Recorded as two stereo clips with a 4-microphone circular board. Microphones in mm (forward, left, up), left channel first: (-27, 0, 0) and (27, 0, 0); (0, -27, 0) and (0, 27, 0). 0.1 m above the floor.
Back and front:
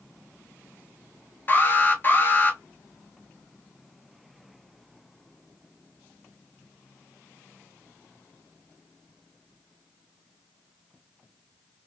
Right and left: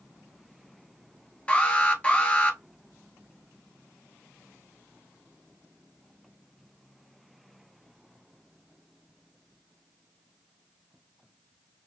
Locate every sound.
1.5 s an alarm: 145° right, 1.0 m